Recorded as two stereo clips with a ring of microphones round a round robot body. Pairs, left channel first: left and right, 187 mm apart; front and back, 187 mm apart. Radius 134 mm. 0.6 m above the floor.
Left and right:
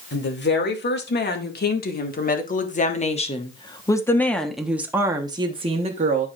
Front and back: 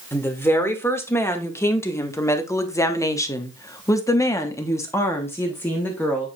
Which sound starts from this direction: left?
A woman speaking, at 0.1 s.